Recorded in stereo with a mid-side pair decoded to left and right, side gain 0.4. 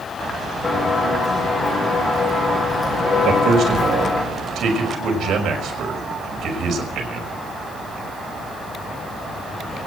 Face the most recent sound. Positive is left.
turn(degrees=-65)